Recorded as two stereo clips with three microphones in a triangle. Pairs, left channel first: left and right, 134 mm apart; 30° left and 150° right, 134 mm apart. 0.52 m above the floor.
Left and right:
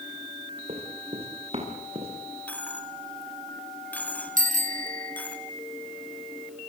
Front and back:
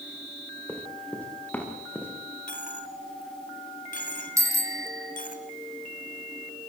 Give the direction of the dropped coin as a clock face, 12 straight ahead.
12 o'clock.